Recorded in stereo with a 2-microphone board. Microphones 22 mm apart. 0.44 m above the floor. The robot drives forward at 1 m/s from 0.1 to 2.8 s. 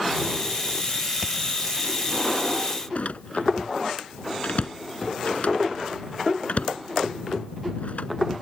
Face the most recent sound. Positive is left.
turn(degrees=75)  # may be behind; listen again after turning